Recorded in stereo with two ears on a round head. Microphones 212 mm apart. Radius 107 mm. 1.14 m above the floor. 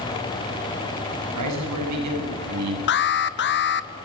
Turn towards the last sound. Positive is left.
turn(degrees=50)  # may be behind; listen again after turning